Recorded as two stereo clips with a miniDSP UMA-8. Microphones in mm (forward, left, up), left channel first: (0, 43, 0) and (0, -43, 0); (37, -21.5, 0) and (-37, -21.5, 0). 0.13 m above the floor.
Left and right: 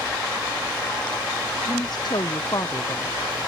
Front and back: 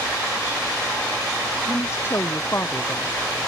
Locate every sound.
1.7 s a woman speaking: 55° left; by 3.2 s 50° left